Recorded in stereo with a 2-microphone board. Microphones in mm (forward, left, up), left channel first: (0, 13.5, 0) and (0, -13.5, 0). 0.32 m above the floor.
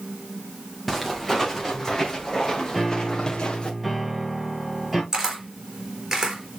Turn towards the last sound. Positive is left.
turn(degrees=-20)  # may be behind; listen again after turning